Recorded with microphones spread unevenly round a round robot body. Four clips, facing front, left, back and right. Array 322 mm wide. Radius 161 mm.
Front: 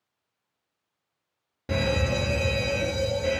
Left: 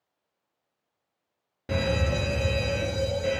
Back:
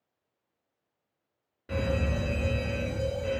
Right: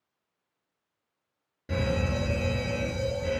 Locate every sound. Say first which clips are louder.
1.7 s a fire alarm: left 2 dB, front 4 dB; 20° left, 3 m